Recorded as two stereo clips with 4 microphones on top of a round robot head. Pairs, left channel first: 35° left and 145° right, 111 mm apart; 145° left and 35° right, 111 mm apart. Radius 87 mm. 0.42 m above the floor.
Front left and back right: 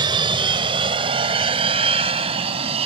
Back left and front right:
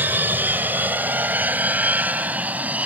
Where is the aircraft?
105° right; by 2.9 s 115° right.